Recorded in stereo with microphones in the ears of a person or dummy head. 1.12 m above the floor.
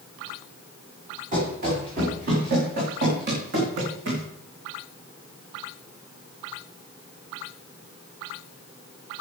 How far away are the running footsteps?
About 6 m.